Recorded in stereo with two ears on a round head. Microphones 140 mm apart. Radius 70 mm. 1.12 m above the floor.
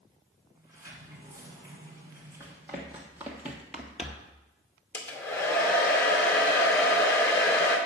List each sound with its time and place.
0.6 s a sliding door: 20° right (ahead or behind), 2.5 m
2.4 s running footsteps: 10° right (ahead or behind), 2.5 m; by 4.3 s centre (ahead or behind), 1.1 m
4.9 s a hair dryer: 15° left (ahead or behind), 1.8 m